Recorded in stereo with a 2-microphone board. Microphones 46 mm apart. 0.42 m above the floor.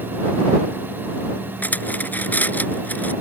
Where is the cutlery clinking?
40° left (ahead or behind).